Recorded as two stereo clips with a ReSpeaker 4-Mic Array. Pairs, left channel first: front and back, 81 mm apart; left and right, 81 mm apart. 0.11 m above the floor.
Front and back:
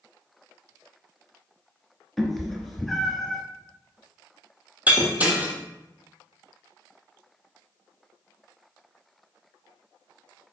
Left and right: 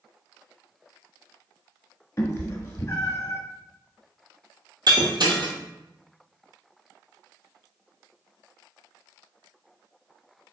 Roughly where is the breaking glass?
Right.